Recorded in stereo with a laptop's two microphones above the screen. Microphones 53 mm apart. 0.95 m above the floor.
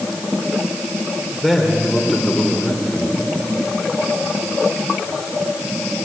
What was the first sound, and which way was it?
A man speaking, 5° right (ahead or behind).